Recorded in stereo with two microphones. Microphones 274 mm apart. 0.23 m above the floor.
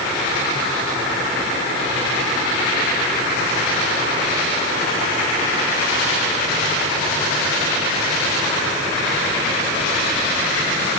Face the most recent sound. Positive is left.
No sound to turn to.